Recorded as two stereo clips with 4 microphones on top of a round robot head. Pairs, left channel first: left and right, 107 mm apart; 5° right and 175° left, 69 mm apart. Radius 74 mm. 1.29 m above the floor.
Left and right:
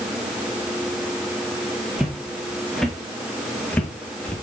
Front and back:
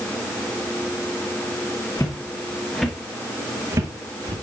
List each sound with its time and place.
2.0 s footsteps: 5° right, 1.6 m; by 4.3 s 165° left, 2 m